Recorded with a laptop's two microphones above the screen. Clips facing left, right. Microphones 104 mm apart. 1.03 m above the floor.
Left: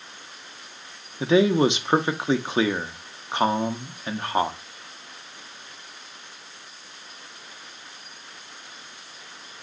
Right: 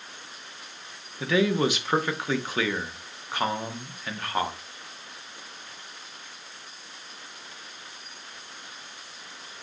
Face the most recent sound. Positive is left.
turn(degrees=25)  # may be behind; listen again after turning